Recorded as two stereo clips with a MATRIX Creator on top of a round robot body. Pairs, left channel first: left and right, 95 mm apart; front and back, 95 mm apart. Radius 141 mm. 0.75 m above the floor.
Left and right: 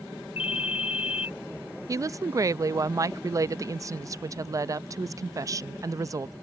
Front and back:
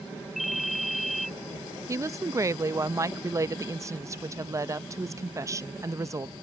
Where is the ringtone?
90° left.